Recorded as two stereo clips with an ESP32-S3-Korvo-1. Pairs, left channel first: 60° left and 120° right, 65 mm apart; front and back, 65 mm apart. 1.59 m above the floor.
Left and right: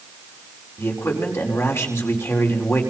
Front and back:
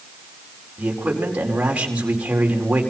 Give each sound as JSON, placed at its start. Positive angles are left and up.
{"t": 0.8, "sound": "a man speaking", "azimuth_deg": 110, "distance_m": 5.0}